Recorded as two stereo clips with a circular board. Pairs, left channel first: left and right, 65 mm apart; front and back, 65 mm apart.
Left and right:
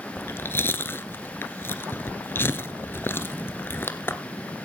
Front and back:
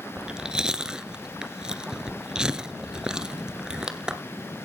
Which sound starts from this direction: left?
Chewing, at 0.2 s.